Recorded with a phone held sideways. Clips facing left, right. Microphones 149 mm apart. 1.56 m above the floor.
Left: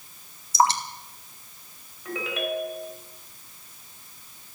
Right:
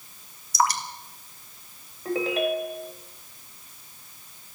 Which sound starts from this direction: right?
A ringtone, at 2.0 s.